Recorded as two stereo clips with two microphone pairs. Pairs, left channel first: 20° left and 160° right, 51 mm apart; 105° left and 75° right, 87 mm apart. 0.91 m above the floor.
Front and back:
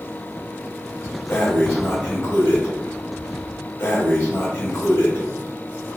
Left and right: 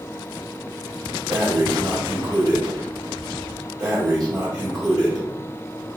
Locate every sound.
1.3 s breathing: 20° right, 1.1 m